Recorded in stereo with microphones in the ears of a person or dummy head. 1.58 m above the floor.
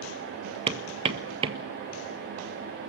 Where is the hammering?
30° right (ahead or behind), 1.6 m.